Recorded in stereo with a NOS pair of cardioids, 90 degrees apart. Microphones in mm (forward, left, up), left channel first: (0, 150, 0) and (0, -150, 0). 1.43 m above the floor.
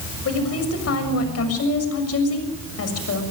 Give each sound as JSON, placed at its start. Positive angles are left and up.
{"t": 0.2, "sound": "a woman speaking", "azimuth_deg": 50, "distance_m": 6.5}